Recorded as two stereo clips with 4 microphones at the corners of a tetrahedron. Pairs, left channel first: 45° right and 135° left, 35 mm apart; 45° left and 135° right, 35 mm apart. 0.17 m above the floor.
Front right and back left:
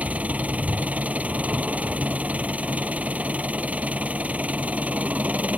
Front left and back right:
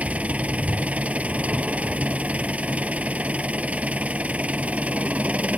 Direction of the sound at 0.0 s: Straight behind.